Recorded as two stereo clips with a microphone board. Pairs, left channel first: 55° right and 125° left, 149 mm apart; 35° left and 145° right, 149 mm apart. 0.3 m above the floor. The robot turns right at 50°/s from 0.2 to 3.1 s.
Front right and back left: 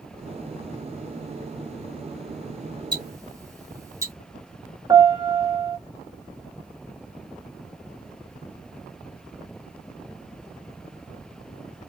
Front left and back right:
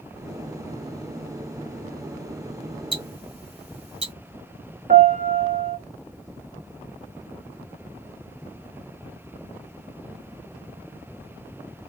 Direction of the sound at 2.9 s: 175° left.